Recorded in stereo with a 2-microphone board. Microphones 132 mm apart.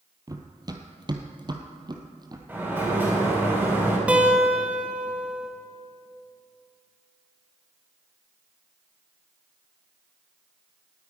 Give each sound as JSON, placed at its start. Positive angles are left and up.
{"t": 0.3, "sound": "running footsteps", "side_deg": -25, "distance_m": 1.3}
{"t": 2.5, "sound": "a sliding door", "side_deg": -15, "distance_m": 4.0}
{"t": 4.1, "sound": "a guitar", "side_deg": -10, "distance_m": 1.8}